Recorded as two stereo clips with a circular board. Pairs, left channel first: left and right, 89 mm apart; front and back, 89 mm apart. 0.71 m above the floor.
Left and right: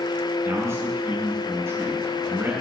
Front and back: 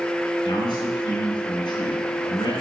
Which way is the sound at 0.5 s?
30° right.